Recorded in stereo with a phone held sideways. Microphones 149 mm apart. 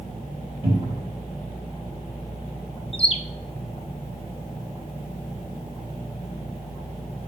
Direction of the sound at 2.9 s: 40° left (ahead or behind).